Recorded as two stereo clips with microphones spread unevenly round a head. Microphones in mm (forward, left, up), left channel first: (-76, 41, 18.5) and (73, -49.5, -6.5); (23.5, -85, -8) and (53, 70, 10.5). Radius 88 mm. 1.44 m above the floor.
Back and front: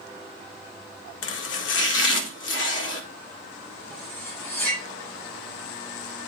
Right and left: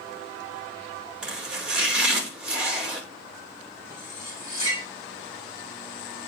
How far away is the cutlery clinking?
About 5 m.